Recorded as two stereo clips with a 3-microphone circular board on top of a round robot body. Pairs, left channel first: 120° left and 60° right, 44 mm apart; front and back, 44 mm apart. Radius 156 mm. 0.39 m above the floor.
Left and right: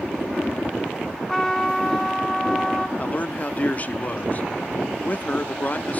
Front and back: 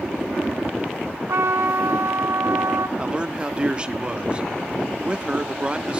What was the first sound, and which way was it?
A trumpet, 160° right.